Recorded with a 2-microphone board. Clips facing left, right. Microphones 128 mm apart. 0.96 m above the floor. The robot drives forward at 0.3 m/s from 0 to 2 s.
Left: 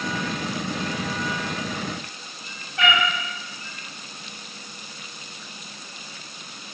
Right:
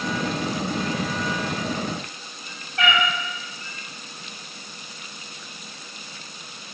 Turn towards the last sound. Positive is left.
turn(degrees=0)  # may be behind; listen again after turning